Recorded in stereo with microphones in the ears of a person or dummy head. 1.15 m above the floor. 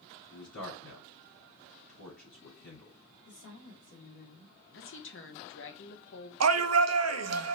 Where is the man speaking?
80° left, 3.5 m.